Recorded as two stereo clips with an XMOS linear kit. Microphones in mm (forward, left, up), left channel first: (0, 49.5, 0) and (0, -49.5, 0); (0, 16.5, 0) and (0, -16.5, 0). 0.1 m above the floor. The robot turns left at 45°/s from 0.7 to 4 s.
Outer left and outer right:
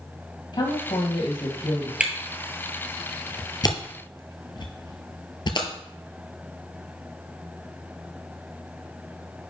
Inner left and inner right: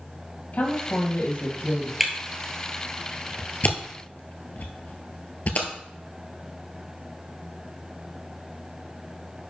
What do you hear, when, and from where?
0.5 s a woman speaking: 110° left, 2.5 m; by 1.9 s 55° left, 2.5 m
2.0 s a camera shutter: 10° right (ahead or behind), 1.1 m; by 5.7 s 50° left (ahead or behind), 1.1 m